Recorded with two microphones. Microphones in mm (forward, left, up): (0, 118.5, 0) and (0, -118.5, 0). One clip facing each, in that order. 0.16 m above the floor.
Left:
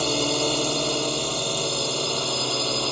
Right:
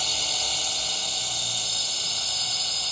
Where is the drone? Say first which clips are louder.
Left 16 dB; 60° left (ahead or behind); by 2.9 s 65° left (ahead or behind).